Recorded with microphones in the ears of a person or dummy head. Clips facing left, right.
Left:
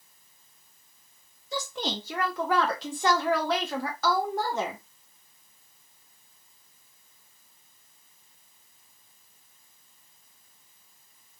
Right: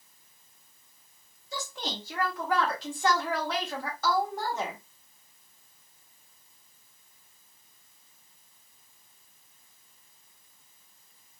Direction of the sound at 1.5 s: 65° left (ahead or behind).